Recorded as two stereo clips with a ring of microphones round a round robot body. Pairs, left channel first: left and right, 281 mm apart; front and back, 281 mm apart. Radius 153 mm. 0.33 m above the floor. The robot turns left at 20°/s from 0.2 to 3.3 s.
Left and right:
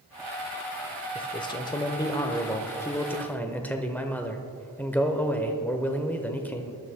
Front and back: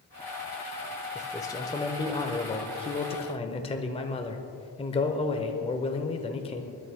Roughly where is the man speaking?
Ahead left.